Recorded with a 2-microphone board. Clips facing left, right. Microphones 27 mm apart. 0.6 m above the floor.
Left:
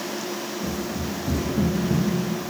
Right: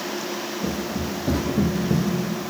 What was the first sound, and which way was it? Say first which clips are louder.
Running footsteps: right 2 dB; 50° right (ahead or behind).